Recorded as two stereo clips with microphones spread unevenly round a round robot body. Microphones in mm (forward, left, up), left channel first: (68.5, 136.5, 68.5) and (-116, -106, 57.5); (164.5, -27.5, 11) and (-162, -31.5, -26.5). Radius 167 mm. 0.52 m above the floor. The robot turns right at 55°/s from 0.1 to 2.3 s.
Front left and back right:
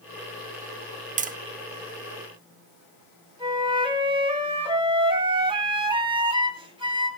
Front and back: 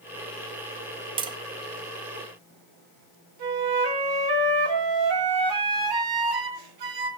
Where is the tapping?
145° right, 0.7 m; by 1.4 s 135° right, 0.7 m.